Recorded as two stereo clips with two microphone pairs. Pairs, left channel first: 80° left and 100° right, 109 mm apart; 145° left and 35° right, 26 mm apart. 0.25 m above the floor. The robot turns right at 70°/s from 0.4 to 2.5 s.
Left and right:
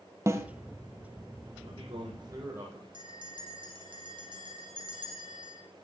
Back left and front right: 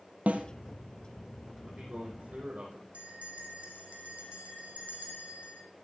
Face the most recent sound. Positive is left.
turn(degrees=-55)